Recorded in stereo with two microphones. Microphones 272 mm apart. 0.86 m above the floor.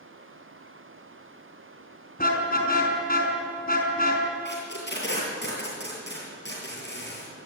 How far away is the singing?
No singing in this recording.